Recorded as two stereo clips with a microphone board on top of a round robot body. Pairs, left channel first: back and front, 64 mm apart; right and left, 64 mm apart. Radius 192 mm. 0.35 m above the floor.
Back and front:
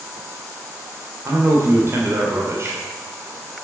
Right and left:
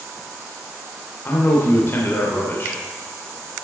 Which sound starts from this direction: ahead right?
A man speaking, at 1.2 s.